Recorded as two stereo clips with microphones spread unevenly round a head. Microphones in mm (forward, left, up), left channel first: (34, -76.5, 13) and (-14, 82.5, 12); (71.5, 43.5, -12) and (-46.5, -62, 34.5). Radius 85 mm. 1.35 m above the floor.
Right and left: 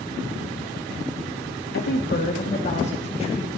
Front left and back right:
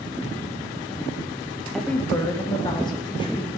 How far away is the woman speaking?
About 1.3 m.